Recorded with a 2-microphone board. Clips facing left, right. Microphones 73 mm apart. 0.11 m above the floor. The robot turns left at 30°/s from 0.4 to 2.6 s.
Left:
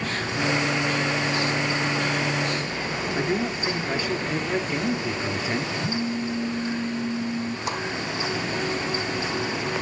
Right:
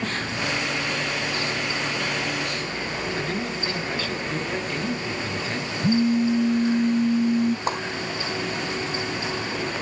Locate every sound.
3.1 s a man speaking: 15° left (ahead or behind), 1.2 m
5.8 s a phone buzzing: 75° right (ahead or behind), 0.8 m
7.7 s a whoosh: 40° right (ahead or behind), 2.5 m